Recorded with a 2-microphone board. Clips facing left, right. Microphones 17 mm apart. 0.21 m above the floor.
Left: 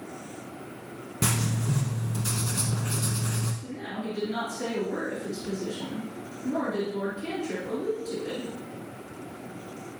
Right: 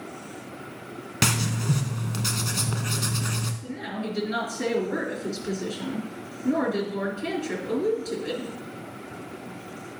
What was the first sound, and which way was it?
Writing, 60° right (ahead or behind).